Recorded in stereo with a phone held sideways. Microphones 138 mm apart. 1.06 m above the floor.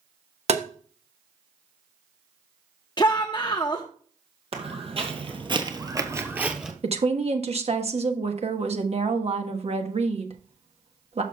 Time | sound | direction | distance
0.5 | tapping | 50° right (ahead or behind) | 1.0 m
3.0 | a shout | 30° left (ahead or behind) | 0.8 m
4.5 | footsteps | 45° right (ahead or behind) | 1.8 m
6.8 | a woman speaking | 50° right (ahead or behind) | 1.1 m